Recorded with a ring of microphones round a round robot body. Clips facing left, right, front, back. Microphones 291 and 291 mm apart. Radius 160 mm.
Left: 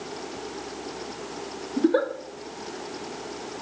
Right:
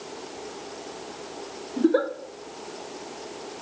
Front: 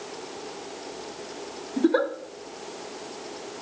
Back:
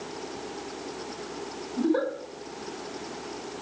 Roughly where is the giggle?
Ahead.